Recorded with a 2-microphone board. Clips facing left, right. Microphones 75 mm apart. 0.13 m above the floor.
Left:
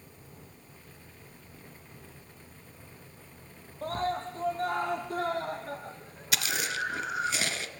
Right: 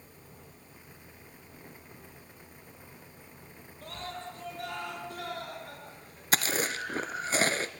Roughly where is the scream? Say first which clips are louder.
Left 10 dB; left.